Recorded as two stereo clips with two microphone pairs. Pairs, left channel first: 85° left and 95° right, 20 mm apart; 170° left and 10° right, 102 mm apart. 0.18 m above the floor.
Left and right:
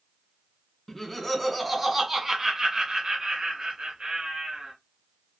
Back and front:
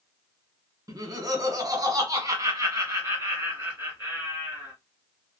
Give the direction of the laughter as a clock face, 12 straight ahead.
11 o'clock.